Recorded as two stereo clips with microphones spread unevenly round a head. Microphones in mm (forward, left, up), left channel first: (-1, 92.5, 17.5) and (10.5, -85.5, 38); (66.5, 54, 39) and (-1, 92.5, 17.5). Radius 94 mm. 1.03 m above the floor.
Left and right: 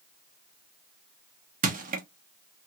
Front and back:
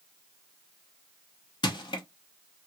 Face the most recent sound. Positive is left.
turn(degrees=-55)